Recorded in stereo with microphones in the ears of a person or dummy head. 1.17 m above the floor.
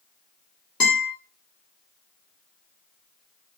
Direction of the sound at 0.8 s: 25° left (ahead or behind).